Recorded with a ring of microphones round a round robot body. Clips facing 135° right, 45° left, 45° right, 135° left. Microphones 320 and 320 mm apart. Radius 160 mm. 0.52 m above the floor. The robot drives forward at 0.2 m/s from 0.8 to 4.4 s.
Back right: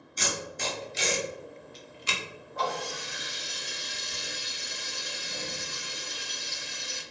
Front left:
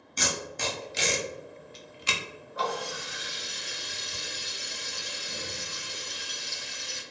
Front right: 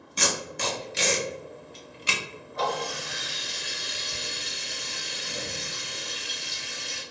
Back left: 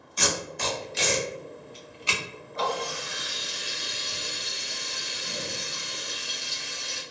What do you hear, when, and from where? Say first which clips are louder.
0.2 s tape being pulled: front left 1 dB, back left 1 dB; 15° left, 0.8 m; by 2.2 s 25° left, 0.5 m
2.5 s a running tap: front left 1 dB, even; 125° left, 1.6 m; by 7.0 s 135° left, 1.8 m